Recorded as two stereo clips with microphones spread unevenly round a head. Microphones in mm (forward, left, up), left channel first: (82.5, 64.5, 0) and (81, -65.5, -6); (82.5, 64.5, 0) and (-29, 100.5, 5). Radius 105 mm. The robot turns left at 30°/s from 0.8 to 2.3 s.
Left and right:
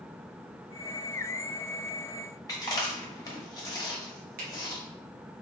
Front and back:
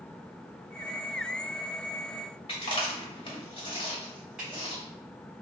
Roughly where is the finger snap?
Right.